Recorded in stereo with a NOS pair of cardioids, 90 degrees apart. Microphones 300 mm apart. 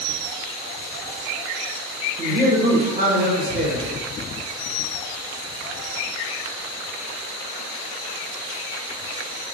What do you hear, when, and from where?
2.2 s a man speaking: 30° right, 1.4 m